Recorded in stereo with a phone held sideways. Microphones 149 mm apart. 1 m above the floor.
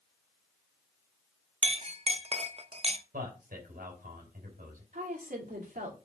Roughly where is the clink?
Right.